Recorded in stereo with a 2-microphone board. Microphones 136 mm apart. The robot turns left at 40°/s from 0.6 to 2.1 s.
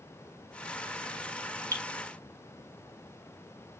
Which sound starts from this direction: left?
Dripping, at 1.7 s.